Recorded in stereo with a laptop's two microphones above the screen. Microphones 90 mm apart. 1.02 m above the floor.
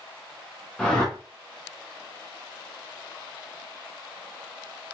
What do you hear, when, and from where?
0.8 s a whoosh: 10° left (ahead or behind), 0.7 m